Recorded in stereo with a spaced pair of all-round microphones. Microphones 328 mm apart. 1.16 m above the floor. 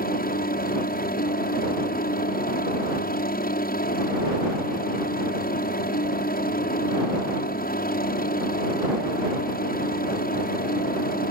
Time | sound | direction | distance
0.0 | a helicopter | 25° left (ahead or behind) | ?